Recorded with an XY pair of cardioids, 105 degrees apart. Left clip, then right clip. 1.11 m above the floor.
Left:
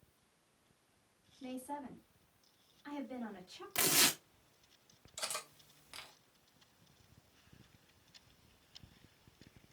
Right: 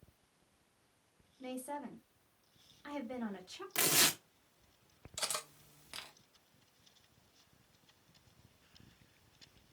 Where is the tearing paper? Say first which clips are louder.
Even; 10° right, 0.6 m.